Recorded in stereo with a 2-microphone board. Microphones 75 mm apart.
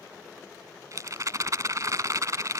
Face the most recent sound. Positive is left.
turn(degrees=-50)  # may be behind; listen again after turning